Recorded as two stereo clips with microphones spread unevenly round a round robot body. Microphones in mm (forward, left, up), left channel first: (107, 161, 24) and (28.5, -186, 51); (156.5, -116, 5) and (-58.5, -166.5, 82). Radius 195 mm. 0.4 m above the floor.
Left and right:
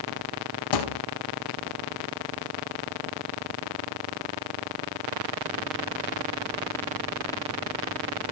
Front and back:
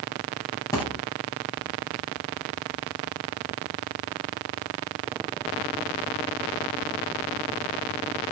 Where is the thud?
95° left, 3 m.